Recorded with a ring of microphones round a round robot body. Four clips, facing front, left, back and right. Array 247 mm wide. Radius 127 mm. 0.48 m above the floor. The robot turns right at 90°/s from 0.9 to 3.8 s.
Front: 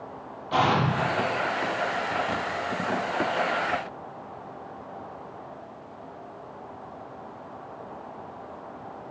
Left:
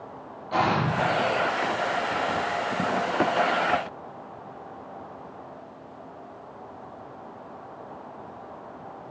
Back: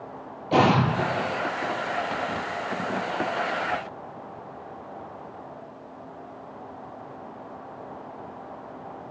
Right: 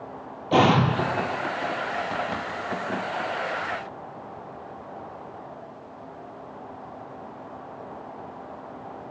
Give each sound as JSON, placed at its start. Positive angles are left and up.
{"t": 0.5, "sound": "an explosion", "azimuth_deg": -130, "distance_m": 2.5}